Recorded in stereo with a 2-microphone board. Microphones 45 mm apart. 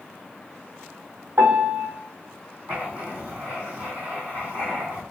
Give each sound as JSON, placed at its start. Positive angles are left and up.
{"t": 1.4, "sound": "a piano", "side_deg": -55, "distance_m": 2.0}
{"t": 2.7, "sound": "writing", "side_deg": -35, "distance_m": 1.9}